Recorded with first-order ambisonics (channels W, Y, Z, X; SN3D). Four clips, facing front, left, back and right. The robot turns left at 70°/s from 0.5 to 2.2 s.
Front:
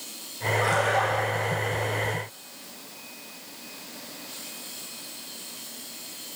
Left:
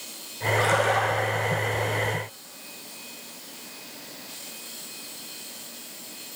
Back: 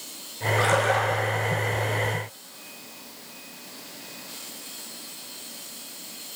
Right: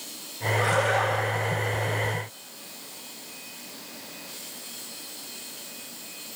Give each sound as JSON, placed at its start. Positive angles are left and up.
{"t": 0.6, "sound": "a splash", "azimuth_deg": 155, "distance_m": 9.5}